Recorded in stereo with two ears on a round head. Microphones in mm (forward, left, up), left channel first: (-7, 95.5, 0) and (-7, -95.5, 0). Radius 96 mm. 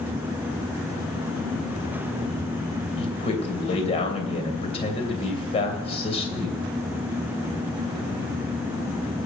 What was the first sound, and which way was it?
A man speaking, 30° left (ahead or behind).